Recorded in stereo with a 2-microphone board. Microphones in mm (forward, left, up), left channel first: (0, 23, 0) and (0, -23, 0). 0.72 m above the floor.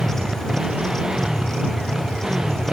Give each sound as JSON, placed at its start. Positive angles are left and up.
{"t": 0.0, "sound": "a motorcycle", "side_deg": -15}